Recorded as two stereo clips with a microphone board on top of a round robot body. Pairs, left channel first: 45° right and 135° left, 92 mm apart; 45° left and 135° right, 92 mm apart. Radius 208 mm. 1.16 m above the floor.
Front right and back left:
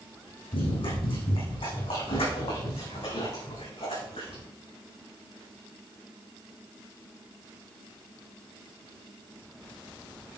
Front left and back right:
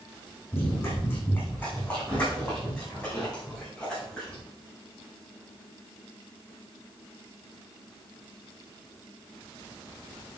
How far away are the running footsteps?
About 4.5 m.